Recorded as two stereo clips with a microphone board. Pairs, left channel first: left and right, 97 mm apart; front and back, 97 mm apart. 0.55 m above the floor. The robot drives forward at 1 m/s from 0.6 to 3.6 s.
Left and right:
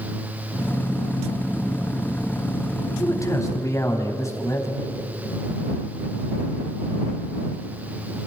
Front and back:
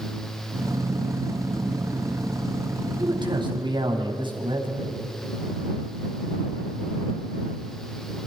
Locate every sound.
3.0 s a man speaking: 145° left, 4 m; by 5.0 s 150° left, 4.5 m